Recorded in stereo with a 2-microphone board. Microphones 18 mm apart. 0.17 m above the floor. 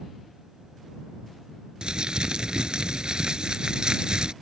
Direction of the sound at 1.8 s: 50° right (ahead or behind).